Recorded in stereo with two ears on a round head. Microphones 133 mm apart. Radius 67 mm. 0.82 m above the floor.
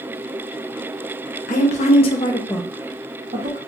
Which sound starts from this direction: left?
A woman speaking, at 1.5 s.